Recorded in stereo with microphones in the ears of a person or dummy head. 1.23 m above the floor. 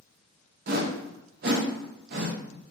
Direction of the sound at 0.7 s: 50° right (ahead or behind).